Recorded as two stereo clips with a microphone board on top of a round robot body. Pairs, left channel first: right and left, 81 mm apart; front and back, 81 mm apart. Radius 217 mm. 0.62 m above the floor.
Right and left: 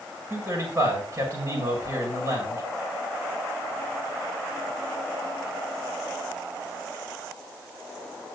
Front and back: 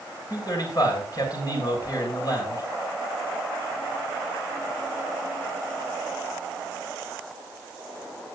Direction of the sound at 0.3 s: 40° left.